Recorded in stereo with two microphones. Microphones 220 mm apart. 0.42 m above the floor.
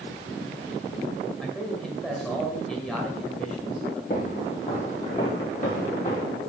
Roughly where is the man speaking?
Centre.